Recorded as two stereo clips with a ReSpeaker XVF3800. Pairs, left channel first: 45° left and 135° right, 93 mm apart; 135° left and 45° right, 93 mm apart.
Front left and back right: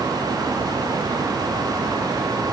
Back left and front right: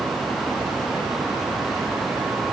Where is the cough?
I don't hear a cough.